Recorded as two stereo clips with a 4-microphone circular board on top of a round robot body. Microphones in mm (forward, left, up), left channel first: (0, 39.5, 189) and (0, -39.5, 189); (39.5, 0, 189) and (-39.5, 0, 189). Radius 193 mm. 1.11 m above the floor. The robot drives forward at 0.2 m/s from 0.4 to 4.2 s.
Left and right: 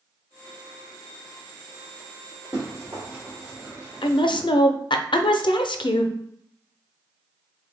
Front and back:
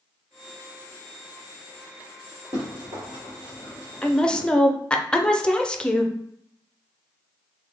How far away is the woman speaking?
About 0.5 m.